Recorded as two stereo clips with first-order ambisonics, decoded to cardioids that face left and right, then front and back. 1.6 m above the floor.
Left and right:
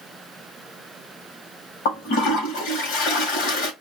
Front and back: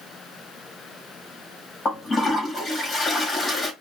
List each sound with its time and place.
1.9 s a toilet flushing: 75° left, 2.5 m